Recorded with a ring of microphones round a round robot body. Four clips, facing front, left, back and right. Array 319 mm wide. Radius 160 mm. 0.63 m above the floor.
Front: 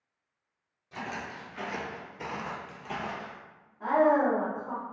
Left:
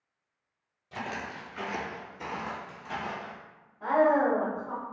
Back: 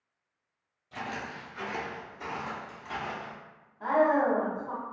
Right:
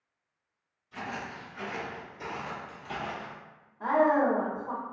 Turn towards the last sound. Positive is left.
turn(degrees=-75)